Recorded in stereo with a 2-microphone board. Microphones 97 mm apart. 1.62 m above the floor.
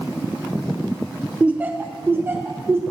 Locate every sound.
1.4 s laughter: 10° right (ahead or behind), 0.5 m; by 2.8 s 25° right (ahead or behind), 1.5 m